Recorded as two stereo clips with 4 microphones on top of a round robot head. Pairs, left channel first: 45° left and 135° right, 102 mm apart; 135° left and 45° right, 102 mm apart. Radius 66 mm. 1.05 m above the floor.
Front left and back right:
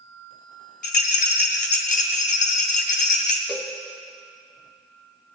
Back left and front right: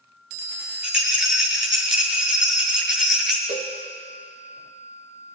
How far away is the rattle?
About 0.8 m.